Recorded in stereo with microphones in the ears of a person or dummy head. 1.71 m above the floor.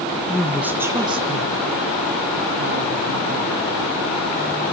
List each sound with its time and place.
0.3 s a woman speaking: 5° left (ahead or behind), 1.8 m; by 3.6 s 65° right (ahead or behind), 3.5 m